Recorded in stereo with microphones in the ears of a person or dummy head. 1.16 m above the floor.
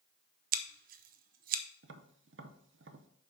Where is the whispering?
I don't hear whispering.